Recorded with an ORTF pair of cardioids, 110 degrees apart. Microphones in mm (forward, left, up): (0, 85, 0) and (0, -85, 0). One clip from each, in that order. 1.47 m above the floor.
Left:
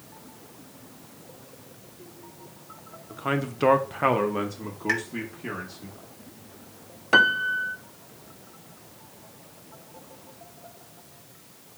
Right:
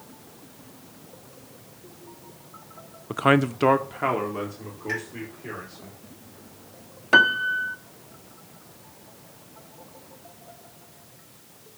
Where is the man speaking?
65° right, 0.6 m; by 5.9 s 35° left, 3 m.